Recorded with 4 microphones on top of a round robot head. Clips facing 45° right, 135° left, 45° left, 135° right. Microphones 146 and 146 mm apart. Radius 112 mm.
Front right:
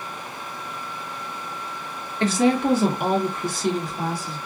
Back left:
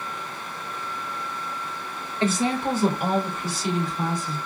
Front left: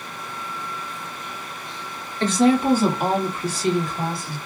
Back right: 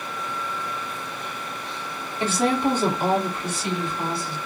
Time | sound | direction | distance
2.2 | a woman speaking | 55° right | 1.6 m